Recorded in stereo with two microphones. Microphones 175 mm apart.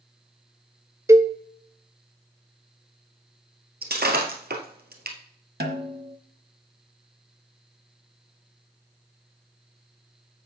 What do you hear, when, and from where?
1.1 s a cowbell: 15° right (ahead or behind), 0.5 m
3.8 s breaking glass: 65° right (ahead or behind), 1.7 m
5.6 s a snare drum: 70° right (ahead or behind), 1.1 m